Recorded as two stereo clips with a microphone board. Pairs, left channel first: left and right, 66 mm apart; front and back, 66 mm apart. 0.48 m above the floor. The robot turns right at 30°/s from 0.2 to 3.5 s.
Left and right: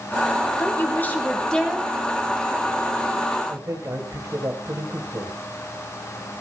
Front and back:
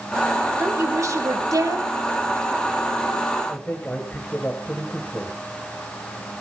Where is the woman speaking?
140° left, 3.5 m; by 1.9 s 175° left, 3.5 m.